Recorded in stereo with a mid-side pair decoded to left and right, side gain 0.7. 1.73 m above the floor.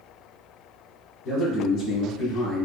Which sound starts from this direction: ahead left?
A man speaking, at 1.2 s.